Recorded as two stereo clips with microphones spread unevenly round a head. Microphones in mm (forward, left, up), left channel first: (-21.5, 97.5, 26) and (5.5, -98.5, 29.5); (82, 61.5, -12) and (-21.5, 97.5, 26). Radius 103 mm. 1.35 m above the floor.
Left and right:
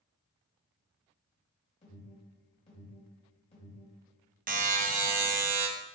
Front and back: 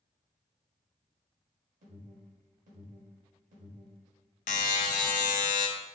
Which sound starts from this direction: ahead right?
A buzzer, at 4.5 s.